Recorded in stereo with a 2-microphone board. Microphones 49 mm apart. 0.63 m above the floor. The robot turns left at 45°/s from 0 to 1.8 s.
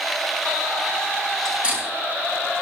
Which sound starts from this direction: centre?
Cutlery clinking, at 1.4 s.